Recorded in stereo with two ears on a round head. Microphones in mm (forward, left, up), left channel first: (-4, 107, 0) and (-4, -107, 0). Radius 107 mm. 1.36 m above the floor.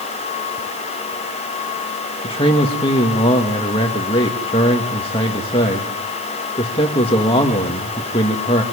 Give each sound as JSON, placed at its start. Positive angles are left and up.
{"t": 2.2, "sound": "a man speaking", "side_deg": 20, "distance_m": 2.0}